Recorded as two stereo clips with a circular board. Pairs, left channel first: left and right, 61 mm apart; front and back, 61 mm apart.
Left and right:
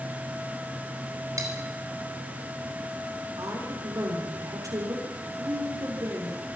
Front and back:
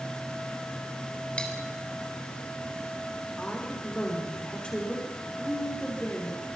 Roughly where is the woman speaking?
Right.